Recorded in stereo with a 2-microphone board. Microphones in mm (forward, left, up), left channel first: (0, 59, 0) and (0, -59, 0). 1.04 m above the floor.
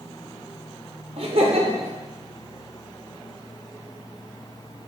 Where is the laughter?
55° right (ahead or behind), 0.6 m.